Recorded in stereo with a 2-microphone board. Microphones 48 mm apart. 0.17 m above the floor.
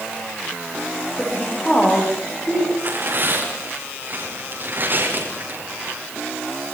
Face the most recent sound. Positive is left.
turn(degrees=-45)  # may be behind; listen again after turning